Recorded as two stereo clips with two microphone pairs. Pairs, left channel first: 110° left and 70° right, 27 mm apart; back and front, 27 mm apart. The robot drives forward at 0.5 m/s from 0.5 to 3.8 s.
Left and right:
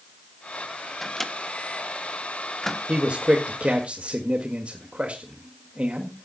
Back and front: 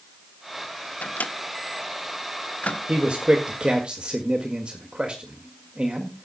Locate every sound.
1.0 s a microwave: 170° right, 0.9 m; by 2.8 s 175° right, 1.8 m
2.9 s a man speaking: 40° right, 2.0 m; by 6.2 s 50° right, 1.7 m